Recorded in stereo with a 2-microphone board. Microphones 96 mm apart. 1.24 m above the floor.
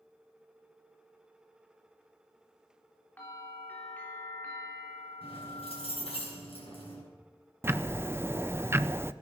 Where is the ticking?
25° right (ahead or behind), 0.5 m.